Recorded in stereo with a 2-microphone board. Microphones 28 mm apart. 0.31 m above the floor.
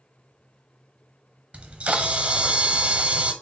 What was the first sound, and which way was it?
A camera shutter, 40° right (ahead or behind).